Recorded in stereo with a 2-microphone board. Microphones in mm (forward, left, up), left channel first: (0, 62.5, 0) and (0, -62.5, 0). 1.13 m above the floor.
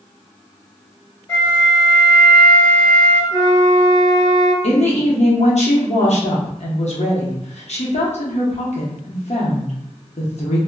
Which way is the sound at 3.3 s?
35° left (ahead or behind).